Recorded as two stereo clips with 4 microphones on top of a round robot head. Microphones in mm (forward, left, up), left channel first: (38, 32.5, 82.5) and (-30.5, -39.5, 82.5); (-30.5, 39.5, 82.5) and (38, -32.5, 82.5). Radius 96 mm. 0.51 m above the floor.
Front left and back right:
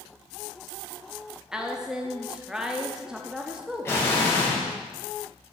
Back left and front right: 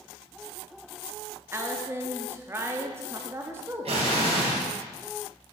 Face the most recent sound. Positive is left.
turn(degrees=-20)